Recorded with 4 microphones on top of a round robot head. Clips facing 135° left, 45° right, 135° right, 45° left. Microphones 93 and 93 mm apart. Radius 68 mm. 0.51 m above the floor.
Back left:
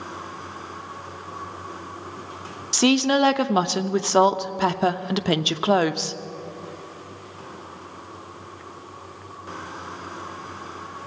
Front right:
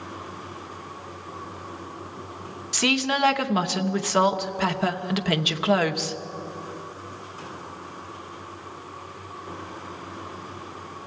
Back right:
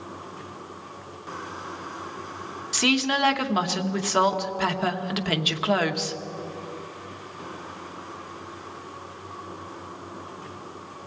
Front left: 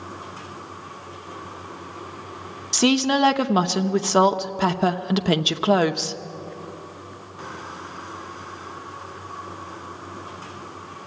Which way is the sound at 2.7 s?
90° left.